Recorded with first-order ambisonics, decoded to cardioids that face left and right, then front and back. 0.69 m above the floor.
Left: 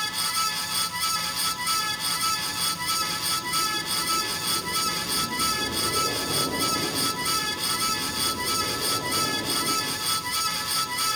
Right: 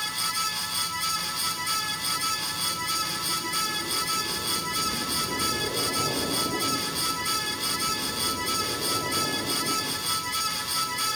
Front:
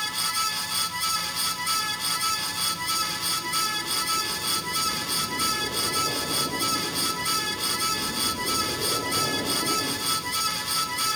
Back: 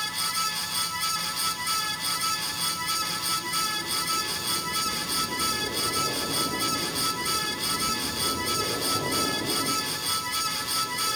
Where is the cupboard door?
I don't hear a cupboard door.